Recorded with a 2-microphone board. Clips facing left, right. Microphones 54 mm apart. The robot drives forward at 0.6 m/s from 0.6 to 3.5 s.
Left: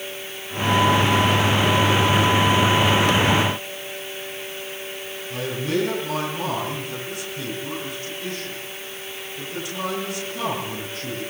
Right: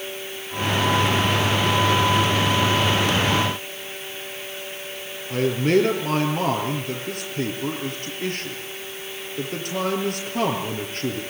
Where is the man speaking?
55° right (ahead or behind), 8 m.